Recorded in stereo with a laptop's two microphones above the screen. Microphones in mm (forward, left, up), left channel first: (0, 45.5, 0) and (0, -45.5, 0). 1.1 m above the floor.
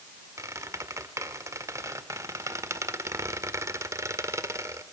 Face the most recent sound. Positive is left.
turn(degrees=-30)  # may be behind; listen again after turning